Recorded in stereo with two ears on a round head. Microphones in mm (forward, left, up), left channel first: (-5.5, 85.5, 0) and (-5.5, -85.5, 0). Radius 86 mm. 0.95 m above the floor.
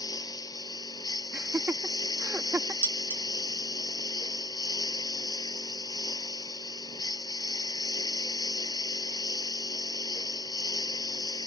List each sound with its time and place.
0.0 s a lawn mower: 20° left (ahead or behind)
1.3 s laughter: 10° right (ahead or behind)
2.8 s dishes clattering: 10° right (ahead or behind)